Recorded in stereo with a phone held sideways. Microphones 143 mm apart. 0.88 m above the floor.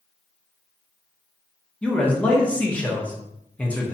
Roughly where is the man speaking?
Centre.